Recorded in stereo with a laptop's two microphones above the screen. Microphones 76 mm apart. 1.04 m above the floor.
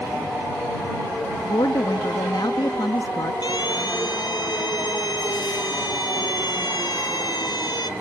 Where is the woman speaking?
75° left (ahead or behind).